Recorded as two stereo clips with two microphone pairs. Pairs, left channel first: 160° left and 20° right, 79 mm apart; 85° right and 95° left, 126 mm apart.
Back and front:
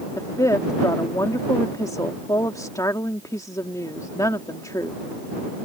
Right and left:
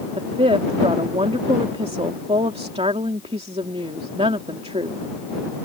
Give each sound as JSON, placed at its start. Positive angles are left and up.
{"t": 0.2, "sound": "a woman speaking", "azimuth_deg": 125}